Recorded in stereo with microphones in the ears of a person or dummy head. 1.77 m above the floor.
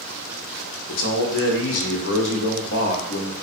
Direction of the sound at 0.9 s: 75° left (ahead or behind).